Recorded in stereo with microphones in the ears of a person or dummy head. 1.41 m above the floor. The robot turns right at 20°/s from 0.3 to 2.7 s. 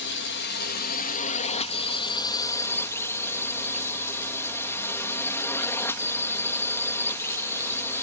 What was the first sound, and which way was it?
A drone, 120° left.